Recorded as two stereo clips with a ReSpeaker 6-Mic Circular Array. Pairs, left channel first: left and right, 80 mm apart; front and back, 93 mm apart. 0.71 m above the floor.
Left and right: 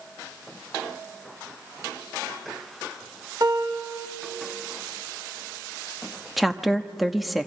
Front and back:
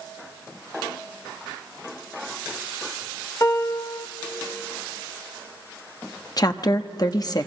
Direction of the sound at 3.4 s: 50° right.